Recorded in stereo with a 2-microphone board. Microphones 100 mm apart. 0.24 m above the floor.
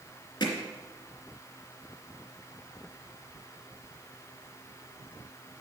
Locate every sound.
0.4 s hammering: 50° left (ahead or behind), 2.5 m